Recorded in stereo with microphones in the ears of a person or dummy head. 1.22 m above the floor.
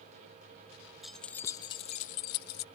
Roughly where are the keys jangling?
Centre.